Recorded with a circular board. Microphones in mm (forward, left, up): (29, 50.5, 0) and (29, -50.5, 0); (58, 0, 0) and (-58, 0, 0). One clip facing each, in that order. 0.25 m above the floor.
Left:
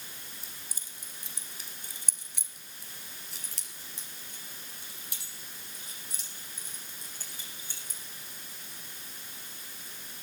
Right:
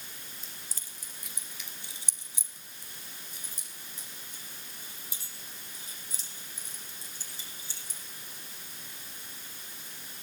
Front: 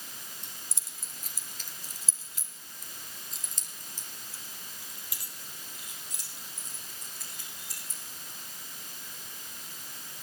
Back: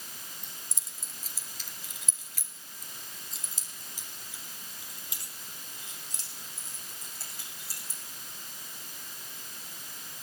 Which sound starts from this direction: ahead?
Keys jangling, at 0.4 s.